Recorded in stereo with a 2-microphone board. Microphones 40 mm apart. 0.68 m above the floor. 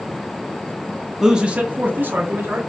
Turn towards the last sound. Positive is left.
turn(degrees=-65)  # may be behind; listen again after turning